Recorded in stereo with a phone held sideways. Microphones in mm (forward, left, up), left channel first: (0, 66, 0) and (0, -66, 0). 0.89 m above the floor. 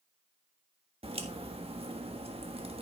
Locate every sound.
1.0 s a crack: 50° right (ahead or behind), 1.5 m